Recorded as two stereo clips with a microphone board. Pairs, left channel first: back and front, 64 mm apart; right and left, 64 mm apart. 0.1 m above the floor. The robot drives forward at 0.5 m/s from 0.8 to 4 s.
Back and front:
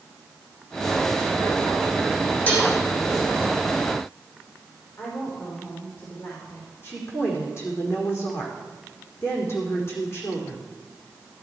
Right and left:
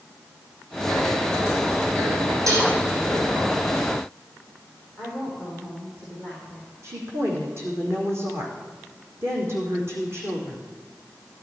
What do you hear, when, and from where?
2.5 s dishes clattering: 120° left, 4 m
5.0 s a woman speaking: 145° left, 5 m
6.8 s a woman speaking: 140° left, 5 m